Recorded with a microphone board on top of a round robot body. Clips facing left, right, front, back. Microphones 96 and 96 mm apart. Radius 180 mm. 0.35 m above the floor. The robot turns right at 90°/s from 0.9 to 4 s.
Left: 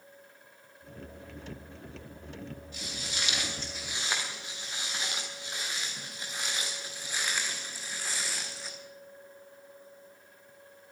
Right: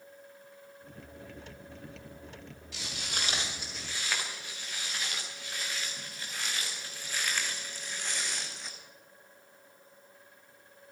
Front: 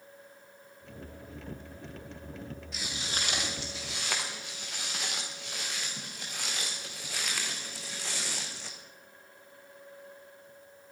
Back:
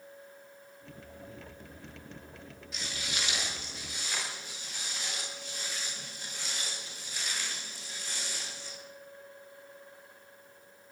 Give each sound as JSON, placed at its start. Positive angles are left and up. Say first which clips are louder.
{"t": 2.7, "sound": "footsteps", "louder": "right 5 dB, even", "azimuth_deg": -90, "distance_m": 6.0}